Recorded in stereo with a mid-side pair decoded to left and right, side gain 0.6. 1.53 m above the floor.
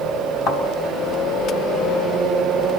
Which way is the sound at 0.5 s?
65° left.